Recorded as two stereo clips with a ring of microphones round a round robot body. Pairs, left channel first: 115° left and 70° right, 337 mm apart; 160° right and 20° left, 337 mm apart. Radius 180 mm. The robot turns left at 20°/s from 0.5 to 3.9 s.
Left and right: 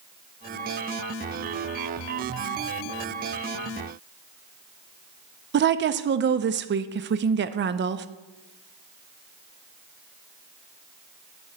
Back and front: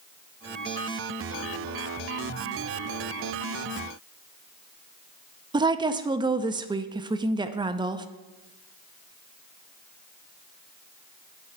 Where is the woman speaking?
45° right, 0.5 m.